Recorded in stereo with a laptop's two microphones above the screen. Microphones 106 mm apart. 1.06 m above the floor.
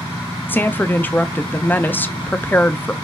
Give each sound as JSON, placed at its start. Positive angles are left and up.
{"t": 0.5, "sound": "a woman speaking", "side_deg": 20, "distance_m": 0.6}